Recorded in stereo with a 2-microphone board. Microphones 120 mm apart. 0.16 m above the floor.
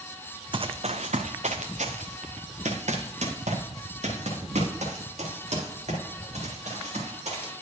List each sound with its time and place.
0.5 s running footsteps: 45° right (ahead or behind), 0.5 m; by 7.5 s 65° right (ahead or behind), 4.5 m